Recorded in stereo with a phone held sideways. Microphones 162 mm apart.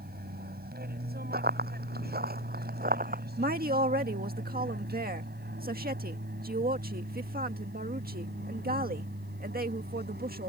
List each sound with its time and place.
0.0 s an aircraft: 70° right (ahead or behind); by 10.5 s 80° right
1.3 s running footsteps: 75° right (ahead or behind); by 3.2 s 60° right (ahead or behind)
3.4 s a woman speaking: 65° right (ahead or behind)